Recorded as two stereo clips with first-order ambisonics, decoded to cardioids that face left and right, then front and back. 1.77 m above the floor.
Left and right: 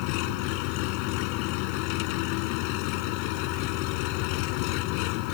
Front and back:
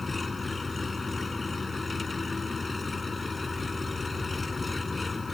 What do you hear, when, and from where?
0.0 s an engine running: 75° left